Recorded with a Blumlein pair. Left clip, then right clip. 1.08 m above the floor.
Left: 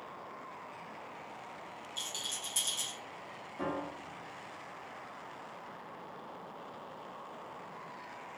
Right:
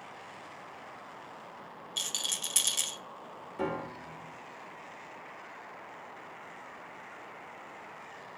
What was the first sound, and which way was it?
A rattle, 30° right.